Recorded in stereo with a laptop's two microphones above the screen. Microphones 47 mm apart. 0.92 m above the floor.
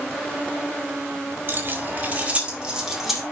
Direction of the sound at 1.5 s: 45° right (ahead or behind).